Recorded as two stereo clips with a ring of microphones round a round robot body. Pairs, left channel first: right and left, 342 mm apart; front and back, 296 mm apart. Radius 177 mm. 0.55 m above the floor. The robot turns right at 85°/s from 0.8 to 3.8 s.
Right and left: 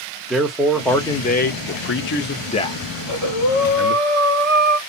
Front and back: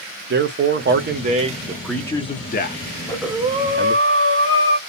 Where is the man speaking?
Straight behind, 0.7 m; by 4.0 s 75° left, 0.7 m.